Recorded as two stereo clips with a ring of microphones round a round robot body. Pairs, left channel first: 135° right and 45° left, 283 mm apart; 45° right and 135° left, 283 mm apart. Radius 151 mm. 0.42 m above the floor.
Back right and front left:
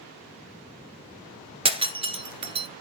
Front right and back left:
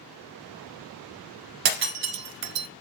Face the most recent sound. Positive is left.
turn(degrees=120)